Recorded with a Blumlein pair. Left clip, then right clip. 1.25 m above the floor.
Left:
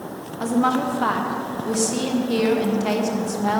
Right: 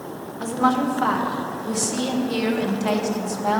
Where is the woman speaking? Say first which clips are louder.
Even; 5° left, 1.2 m.